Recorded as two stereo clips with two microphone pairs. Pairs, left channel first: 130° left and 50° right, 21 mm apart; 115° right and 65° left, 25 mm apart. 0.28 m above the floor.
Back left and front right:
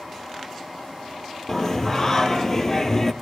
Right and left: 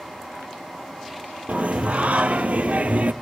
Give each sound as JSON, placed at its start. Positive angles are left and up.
{"t": 1.5, "sound": "singing", "azimuth_deg": 60, "distance_m": 1.9}